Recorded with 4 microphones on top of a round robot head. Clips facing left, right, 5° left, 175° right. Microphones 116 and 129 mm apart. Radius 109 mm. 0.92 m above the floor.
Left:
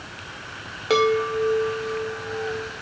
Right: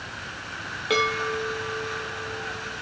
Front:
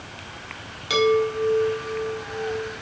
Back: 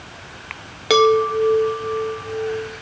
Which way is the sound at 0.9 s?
155° left.